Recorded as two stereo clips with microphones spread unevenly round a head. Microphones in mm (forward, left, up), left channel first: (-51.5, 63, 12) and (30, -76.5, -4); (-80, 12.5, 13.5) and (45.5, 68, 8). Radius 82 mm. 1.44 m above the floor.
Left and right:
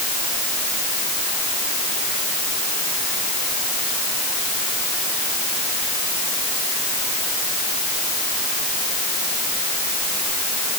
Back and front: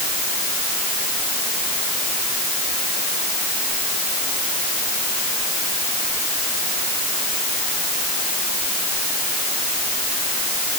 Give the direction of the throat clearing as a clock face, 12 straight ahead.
No throat clearing in this recording.